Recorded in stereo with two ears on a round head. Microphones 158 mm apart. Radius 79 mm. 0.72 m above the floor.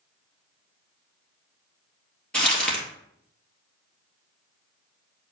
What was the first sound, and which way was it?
Crumpling, 5° left (ahead or behind).